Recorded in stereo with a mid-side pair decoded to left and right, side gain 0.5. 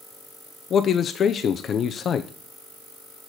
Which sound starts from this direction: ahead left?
A man speaking, at 0.7 s.